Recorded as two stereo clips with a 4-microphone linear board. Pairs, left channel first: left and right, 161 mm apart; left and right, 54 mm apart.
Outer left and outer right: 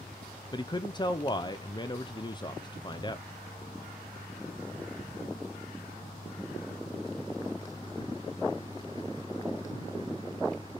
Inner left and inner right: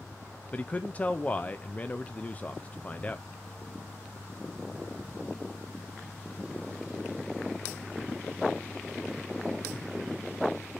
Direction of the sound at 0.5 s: 25° left (ahead or behind).